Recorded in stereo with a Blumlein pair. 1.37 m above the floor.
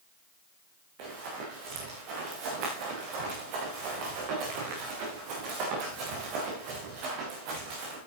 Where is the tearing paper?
I don't hear tearing paper.